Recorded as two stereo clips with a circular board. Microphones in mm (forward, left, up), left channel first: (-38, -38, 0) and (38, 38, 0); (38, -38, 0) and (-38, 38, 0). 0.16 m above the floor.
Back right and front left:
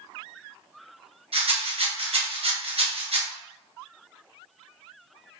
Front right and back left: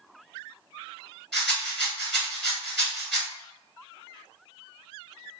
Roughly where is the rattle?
Ahead left.